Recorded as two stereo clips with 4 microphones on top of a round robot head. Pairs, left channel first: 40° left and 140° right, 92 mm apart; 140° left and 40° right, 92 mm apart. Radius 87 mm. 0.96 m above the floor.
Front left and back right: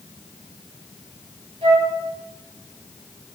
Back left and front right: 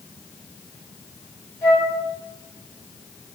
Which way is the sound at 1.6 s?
155° right.